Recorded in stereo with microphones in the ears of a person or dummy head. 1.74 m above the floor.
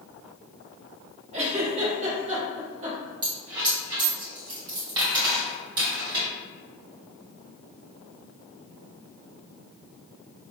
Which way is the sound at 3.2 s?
25° right (ahead or behind).